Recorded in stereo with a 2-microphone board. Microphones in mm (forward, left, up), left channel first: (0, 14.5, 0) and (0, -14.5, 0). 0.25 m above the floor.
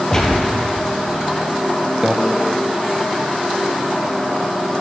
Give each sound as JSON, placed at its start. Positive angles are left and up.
{"t": 0.1, "sound": "a gunshot", "side_deg": 20, "distance_m": 2.5}
{"t": 2.0, "sound": "a microwave", "side_deg": -20, "distance_m": 1.3}